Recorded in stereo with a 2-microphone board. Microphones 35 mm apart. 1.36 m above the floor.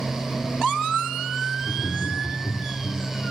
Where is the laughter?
80° left, 3.5 m.